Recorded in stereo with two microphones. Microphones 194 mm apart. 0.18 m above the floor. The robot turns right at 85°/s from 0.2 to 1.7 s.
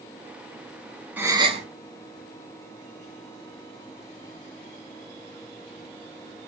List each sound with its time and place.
1.2 s a gasp: 170° right, 0.6 m; by 1.6 s 125° right, 0.6 m